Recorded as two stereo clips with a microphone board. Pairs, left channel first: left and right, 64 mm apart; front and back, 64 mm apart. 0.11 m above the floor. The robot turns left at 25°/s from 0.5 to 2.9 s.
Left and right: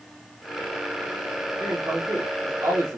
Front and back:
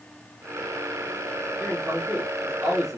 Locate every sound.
1.6 s a man speaking: 65° right, 2.5 m; by 3.0 s 95° right, 2.5 m